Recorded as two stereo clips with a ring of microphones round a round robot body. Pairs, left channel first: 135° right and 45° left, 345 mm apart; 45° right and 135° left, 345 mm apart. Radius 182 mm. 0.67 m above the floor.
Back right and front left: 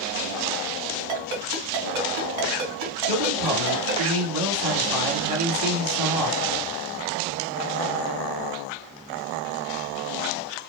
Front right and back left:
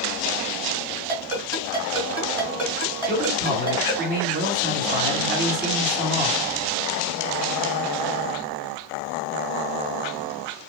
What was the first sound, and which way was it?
A ringtone, 70° left.